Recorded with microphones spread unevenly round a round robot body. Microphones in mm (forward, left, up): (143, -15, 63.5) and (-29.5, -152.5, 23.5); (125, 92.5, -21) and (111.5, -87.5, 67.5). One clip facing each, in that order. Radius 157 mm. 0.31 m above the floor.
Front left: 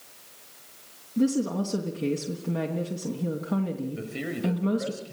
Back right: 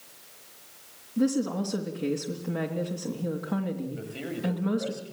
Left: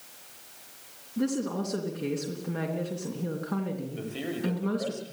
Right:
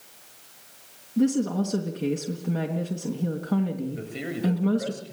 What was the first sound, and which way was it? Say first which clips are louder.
A woman speaking: front left 1 dB, right 6 dB; 30° right.